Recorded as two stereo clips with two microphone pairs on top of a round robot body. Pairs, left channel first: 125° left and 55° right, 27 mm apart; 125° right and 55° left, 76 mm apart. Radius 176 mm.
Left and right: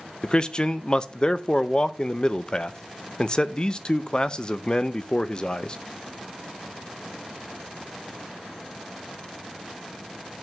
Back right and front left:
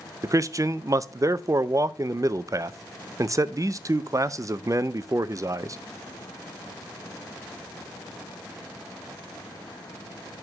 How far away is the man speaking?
About 0.7 m.